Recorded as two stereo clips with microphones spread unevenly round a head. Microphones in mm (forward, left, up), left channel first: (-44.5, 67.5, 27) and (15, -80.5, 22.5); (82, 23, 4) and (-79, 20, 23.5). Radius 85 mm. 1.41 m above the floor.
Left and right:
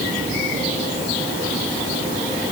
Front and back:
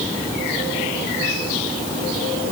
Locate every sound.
Only background noise.